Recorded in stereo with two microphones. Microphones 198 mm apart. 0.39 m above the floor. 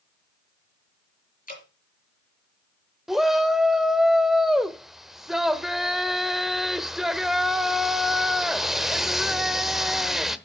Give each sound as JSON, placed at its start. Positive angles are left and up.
{"t": 1.5, "sound": "dripping", "side_deg": 50, "distance_m": 5.0}
{"t": 3.1, "sound": "a shout", "side_deg": 0, "distance_m": 1.2}